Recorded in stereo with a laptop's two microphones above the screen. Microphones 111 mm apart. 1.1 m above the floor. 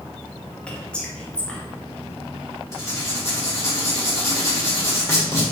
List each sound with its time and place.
0.7 s whispering: 10° left (ahead or behind), 0.8 m
2.7 s writing: 30° left (ahead or behind), 1.7 m